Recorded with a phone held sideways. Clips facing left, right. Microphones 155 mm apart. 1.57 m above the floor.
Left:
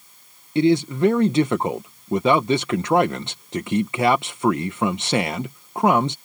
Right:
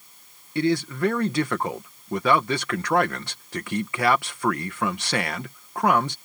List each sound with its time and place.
0.6 s a man speaking: 20° left (ahead or behind)